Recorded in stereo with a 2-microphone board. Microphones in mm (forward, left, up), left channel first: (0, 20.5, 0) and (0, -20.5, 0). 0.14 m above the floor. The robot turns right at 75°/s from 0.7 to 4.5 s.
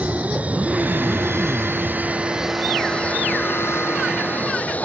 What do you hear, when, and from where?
0.0 s an aircraft: 145° right; by 4.9 s 140° left